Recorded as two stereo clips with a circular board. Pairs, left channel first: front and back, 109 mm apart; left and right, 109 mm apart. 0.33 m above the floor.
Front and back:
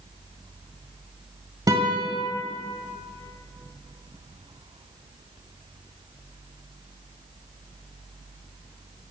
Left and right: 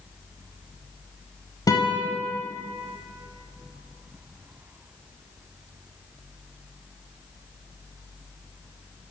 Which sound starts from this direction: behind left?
A guitar, at 1.7 s.